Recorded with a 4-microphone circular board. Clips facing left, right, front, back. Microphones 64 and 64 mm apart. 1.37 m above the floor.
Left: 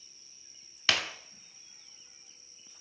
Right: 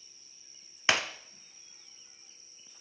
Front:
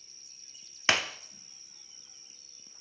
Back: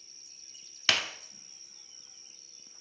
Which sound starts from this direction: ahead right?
Breaking glass, at 0.9 s.